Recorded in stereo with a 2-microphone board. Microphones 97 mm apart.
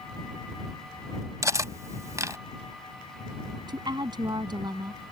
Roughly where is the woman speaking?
Right.